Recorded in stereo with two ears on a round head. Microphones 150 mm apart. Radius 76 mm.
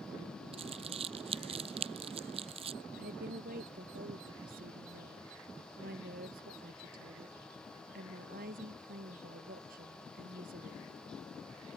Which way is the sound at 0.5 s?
35° right (ahead or behind).